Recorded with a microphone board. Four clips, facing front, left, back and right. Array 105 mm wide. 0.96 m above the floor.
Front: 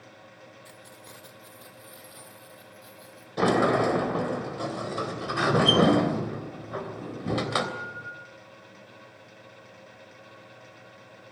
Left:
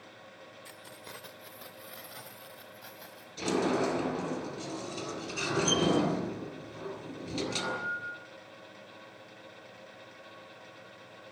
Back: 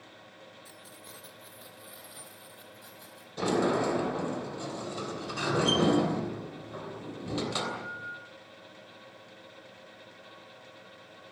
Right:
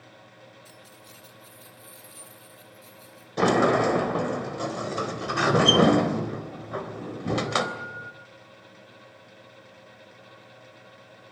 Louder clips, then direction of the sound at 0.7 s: Left 1 dB, front 2 dB; 70° left.